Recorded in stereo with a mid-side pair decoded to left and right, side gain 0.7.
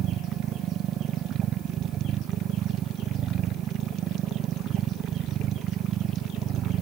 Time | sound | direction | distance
0.0 | a machine running | 45° right | ?